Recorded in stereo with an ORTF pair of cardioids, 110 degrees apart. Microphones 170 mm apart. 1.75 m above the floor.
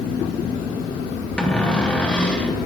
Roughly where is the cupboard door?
Ahead.